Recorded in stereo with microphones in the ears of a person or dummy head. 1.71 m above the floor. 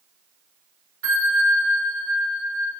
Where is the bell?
70° right (ahead or behind), 2.5 m.